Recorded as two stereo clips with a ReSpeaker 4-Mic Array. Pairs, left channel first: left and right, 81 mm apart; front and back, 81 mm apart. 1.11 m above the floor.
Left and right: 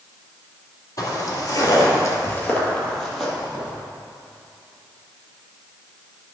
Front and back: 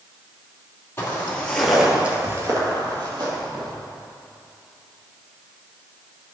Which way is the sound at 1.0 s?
55° left.